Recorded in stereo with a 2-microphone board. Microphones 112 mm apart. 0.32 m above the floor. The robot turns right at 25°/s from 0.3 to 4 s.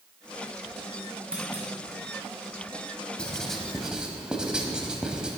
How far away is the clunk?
About 3 m.